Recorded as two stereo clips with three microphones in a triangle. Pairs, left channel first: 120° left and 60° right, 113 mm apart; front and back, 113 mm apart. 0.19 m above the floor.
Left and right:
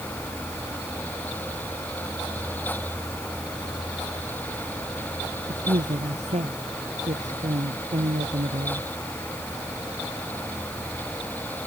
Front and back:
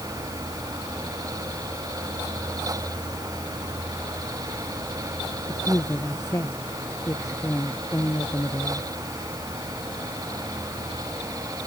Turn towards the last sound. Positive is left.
turn(degrees=-65)